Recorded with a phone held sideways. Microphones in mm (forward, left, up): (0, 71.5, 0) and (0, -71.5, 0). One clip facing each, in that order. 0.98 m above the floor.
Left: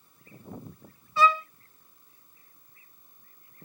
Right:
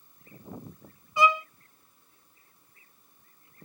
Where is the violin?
15° right (ahead or behind), 0.5 m.